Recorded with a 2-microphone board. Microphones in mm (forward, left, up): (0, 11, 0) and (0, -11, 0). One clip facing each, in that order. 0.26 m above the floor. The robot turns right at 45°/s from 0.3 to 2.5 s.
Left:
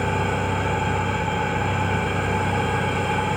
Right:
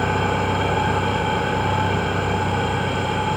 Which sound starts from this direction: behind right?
An engine running, at 0.0 s.